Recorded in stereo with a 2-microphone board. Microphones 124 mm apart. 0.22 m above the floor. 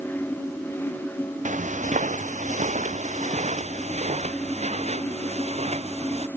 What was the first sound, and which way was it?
Footsteps, 80° right.